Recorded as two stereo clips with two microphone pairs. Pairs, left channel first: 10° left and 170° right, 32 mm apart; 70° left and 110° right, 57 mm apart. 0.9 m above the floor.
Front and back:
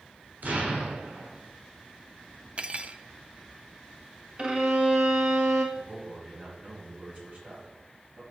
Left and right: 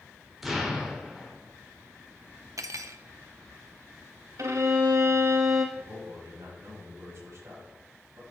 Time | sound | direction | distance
0.4 | an explosion | 165° left | 2.5 m
2.6 | cutlery clinking | 125° right | 0.6 m
4.4 | a violin | 120° right | 1.4 m
5.8 | a man speaking | 145° right | 5.5 m